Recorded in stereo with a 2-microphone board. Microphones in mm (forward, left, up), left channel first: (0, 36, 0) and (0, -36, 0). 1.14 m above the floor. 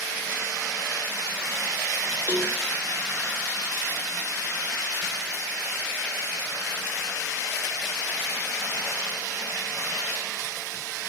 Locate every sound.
2.3 s a cowbell: 25° right (ahead or behind), 0.7 m